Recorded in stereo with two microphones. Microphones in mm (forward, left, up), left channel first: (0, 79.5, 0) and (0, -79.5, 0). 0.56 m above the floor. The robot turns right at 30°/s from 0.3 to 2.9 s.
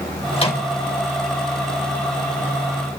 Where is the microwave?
40° left (ahead or behind), 1.9 m; by 0.7 s 30° left (ahead or behind), 1.9 m.